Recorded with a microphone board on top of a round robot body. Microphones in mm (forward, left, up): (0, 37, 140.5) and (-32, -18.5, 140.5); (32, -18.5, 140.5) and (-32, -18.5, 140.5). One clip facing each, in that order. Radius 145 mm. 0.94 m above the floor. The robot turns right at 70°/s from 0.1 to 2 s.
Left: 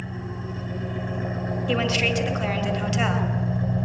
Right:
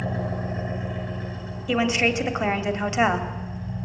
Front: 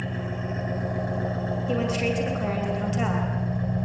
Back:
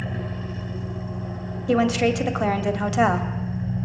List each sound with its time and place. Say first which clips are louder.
0.0 s an engine running: right 6 dB, even; 95° right, 0.9 m; by 3.9 s 40° left, 0.9 m
1.7 s a woman speaking: right 3 dB, back 8 dB; 150° left, 2.5 m; by 3.3 s 175° left, 2.5 m